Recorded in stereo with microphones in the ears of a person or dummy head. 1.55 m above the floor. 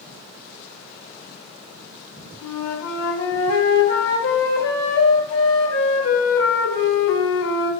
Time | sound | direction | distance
2.4 | a flute | 75° left (ahead or behind) | 0.6 m